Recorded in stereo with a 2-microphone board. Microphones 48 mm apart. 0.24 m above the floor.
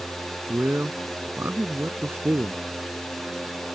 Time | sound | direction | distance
0.5 | a man speaking | 55° right (ahead or behind) | ?